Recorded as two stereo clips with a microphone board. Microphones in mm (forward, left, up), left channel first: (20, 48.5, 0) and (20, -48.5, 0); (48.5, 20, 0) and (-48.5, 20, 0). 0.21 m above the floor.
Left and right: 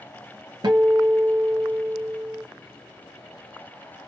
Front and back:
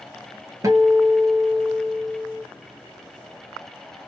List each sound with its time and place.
0.6 s a guitar: 130° right, 0.7 m